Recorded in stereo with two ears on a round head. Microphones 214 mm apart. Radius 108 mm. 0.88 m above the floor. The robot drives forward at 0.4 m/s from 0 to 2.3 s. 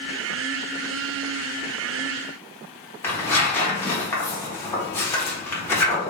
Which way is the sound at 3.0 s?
10° left (ahead or behind).